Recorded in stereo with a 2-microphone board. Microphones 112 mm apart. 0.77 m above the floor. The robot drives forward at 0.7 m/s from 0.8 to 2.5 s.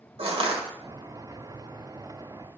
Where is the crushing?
60° right (ahead or behind), 1.5 m.